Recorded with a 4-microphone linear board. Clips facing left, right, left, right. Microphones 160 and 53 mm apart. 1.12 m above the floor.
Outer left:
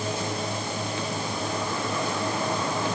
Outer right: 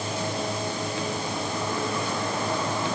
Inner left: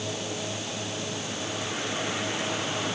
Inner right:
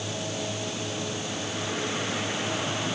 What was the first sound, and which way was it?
Only background noise.